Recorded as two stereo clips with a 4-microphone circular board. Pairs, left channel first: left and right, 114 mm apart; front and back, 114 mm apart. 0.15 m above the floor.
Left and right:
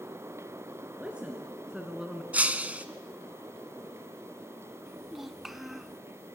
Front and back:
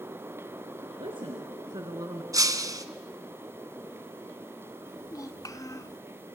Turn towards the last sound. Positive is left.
turn(degrees=-5)